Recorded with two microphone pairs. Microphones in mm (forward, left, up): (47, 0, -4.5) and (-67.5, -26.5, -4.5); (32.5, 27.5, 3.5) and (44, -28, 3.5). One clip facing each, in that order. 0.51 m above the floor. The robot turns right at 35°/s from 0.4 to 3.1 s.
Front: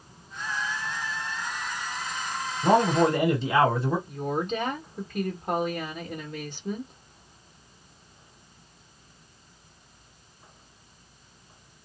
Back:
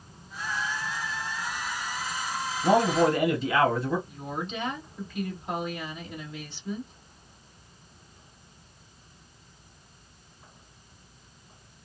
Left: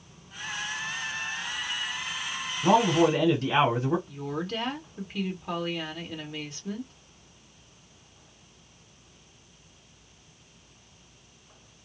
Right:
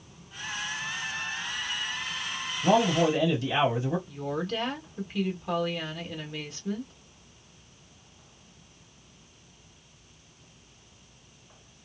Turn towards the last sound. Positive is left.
turn(degrees=15)